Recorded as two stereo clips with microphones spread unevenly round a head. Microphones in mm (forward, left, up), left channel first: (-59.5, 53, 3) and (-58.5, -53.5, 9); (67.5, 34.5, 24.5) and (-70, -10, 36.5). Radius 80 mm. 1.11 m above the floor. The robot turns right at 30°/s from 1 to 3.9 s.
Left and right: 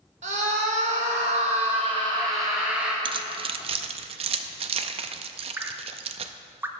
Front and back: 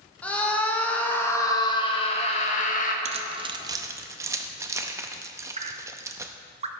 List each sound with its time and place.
0.2 s a scream: 60° right, 1.7 m; by 3.0 s 5° right, 1.7 m
3.0 s keys jangling: 120° right, 0.6 m; by 6.3 s 95° right, 0.6 m
5.6 s dripping: 155° right, 0.8 m